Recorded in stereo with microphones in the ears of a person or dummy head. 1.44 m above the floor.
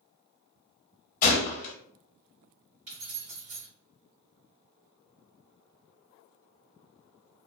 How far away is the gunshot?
About 0.8 m.